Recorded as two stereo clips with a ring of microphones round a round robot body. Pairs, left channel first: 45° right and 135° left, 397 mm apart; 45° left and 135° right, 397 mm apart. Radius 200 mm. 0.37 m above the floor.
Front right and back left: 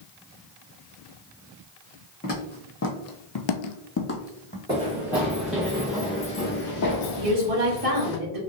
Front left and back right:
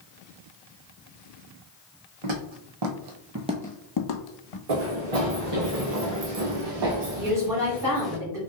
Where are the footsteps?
115° right, 1.5 m; by 4.6 s 35° left, 1.1 m.